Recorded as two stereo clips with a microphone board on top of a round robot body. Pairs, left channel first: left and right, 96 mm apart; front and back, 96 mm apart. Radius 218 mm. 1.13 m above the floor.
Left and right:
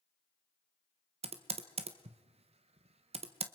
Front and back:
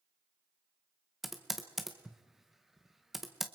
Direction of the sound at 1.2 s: 90° right.